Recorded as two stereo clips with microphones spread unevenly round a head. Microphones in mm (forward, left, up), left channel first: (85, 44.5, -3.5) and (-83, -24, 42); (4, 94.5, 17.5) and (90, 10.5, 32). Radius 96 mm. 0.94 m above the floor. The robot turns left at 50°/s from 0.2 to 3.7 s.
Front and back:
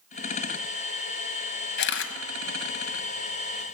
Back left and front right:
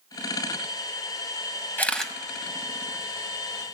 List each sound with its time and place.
1.8 s a camera shutter: 60° left, 1.1 m; by 3.7 s 40° right, 1.1 m